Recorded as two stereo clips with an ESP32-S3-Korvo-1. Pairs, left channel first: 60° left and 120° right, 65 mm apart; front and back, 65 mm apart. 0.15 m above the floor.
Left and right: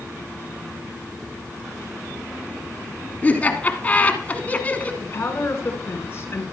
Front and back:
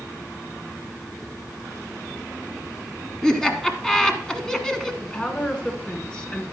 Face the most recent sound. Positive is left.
turn(degrees=65)